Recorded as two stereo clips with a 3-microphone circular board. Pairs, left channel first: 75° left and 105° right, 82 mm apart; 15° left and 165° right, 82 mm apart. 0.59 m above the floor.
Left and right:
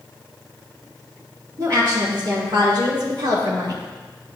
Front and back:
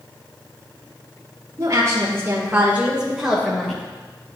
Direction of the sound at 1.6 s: 135° right.